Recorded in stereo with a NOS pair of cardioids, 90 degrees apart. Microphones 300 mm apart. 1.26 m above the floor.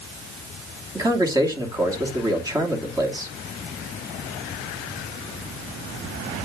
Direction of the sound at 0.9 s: 10° right.